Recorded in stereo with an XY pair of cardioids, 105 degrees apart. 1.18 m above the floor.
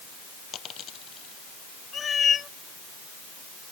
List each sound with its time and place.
0.5 s a dropped coin: 55° left
1.9 s a cat meowing: 40° left